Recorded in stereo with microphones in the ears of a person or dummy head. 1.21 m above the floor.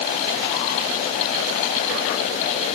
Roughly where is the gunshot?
I don't hear a gunshot.